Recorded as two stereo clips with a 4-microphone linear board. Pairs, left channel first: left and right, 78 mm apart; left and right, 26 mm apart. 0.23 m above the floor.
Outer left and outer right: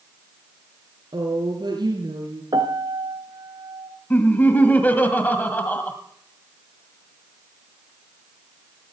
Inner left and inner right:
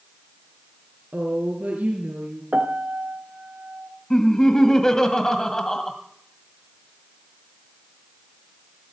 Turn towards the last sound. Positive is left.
turn(degrees=25)  # may be behind; listen again after turning